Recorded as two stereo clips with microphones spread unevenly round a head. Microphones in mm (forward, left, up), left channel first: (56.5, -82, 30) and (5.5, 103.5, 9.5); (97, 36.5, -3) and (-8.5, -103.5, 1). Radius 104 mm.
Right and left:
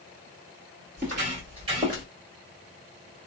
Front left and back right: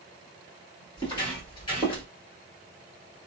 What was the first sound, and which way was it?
Footsteps, 95° left.